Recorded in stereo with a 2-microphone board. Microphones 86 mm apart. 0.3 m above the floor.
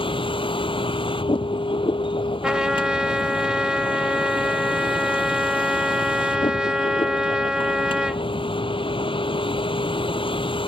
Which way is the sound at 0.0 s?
75° left (ahead or behind).